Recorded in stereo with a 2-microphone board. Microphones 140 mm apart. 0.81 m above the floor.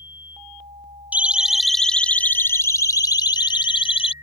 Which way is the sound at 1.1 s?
10° right (ahead or behind).